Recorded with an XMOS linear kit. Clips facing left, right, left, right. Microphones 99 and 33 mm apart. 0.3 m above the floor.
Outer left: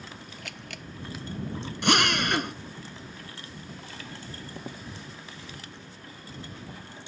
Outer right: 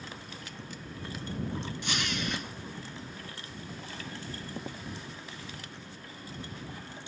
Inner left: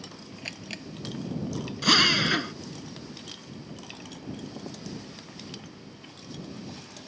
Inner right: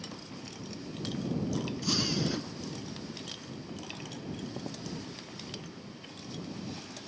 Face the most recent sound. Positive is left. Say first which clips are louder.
# outer left 13 dB, inner left 12 dB
turn(degrees=75)  # may be behind; listen again after turning